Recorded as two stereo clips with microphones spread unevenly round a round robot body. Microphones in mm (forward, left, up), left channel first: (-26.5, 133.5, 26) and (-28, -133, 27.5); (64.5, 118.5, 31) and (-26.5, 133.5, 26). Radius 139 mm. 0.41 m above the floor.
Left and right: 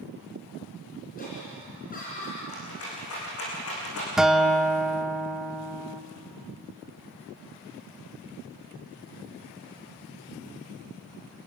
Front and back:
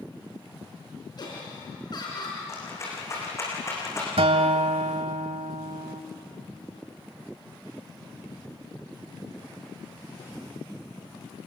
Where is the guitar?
Straight behind, 1.0 m.